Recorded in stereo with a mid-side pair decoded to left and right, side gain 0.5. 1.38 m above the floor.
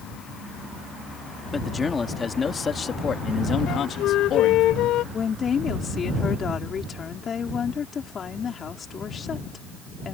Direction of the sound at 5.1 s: 40° left.